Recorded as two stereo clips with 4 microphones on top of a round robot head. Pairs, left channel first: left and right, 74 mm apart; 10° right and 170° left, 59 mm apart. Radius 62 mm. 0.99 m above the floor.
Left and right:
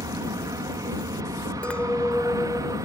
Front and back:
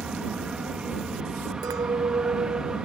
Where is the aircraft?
110° right.